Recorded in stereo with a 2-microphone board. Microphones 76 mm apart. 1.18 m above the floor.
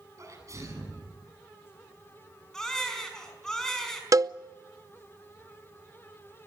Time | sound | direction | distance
0.2 | a sneeze | 45° right (ahead or behind) | 8.5 m
2.5 | a baby crying | 10° left (ahead or behind) | 5 m
4.1 | a cowbell | 50° right (ahead or behind) | 0.6 m